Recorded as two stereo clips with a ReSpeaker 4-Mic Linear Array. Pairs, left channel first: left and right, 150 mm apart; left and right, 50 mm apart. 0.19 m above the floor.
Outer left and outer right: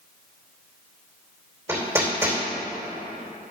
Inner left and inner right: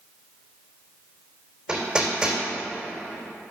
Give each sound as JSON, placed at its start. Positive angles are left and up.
{"t": 1.7, "sound": "hammering", "side_deg": -15, "distance_m": 3.0}